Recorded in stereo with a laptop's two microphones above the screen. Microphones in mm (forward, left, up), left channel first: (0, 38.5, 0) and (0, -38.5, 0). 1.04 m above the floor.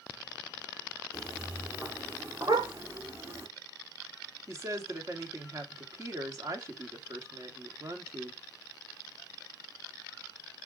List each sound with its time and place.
1.1 s footsteps: 20° right (ahead or behind), 1.8 m; by 3.5 s 30° right (ahead or behind), 3.5 m
2.5 s a dog barking: 55° right (ahead or behind), 1.7 m
4.5 s a woman speaking: 40° right (ahead or behind), 2 m